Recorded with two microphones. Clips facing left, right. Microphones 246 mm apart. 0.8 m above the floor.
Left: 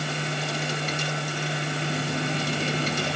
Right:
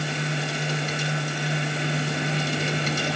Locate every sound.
Only background noise.